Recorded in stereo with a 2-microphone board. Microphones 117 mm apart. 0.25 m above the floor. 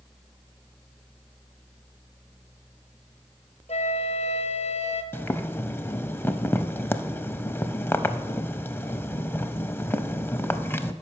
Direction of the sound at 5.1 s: 20° left (ahead or behind).